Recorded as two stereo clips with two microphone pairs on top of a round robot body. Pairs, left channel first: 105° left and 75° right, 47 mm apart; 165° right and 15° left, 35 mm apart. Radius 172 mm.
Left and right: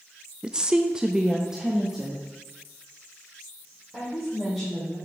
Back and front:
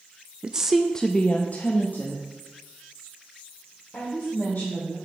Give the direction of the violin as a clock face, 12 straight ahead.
I don't hear a violin.